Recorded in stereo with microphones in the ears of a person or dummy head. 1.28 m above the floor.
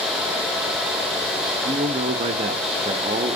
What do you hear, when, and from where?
1.6 s a man speaking: 25° right (ahead or behind), 0.7 m